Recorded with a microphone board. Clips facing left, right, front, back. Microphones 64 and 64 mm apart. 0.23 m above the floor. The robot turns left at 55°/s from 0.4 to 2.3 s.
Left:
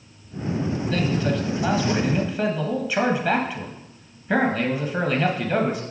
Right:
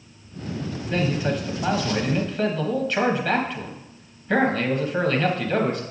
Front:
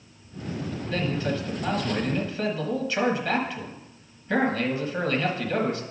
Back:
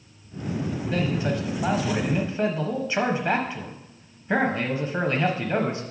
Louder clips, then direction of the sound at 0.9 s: Right 1 dB, back 1 dB; 125° right.